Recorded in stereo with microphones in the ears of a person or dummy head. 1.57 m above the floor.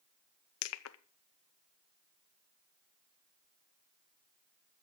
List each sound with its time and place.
0.6 s crushing: 90° left, 0.7 m